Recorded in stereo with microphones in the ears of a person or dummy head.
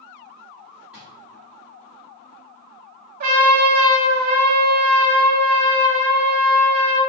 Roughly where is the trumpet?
Right.